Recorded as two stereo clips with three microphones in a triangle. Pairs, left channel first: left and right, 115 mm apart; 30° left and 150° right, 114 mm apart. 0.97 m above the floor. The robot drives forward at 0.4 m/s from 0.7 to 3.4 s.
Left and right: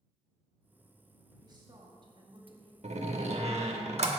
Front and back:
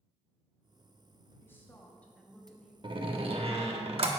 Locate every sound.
1.4 s a woman speaking: 40° right, 1.6 m; by 2.7 s 55° right, 1.3 m
2.8 s a door slam: 105° right, 1.0 m; by 4.1 s 115° right, 1.1 m